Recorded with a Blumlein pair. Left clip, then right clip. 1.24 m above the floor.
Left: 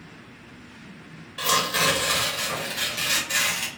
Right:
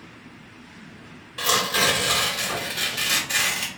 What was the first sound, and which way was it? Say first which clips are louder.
Tearing paper: right 1 dB; 5° right.